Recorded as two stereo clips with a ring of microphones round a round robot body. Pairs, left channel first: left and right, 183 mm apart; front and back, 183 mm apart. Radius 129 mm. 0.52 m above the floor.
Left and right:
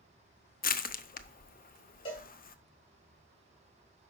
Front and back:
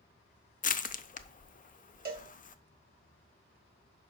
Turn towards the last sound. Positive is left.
turn(degrees=155)